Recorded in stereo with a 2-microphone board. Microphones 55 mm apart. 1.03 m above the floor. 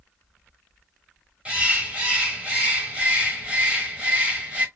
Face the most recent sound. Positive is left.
turn(degrees=-20)  # may be behind; listen again after turning